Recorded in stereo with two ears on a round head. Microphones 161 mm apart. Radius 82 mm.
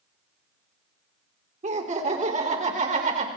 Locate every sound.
1.6 s laughter: 40° right (ahead or behind), 3 m; by 3.3 s 45° right (ahead or behind), 4 m